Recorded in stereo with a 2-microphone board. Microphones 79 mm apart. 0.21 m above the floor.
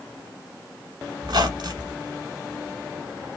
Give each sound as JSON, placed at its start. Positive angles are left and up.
{"t": 1.2, "sound": "a squeak", "side_deg": -65, "distance_m": 0.9}